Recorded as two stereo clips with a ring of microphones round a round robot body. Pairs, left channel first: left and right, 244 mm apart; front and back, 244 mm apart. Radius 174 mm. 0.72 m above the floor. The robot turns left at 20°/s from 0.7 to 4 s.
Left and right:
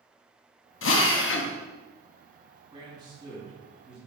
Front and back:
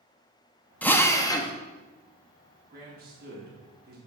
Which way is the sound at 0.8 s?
85° left.